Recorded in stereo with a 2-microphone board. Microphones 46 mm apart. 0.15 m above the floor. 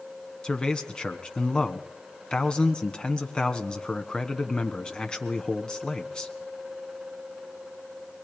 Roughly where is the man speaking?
Centre.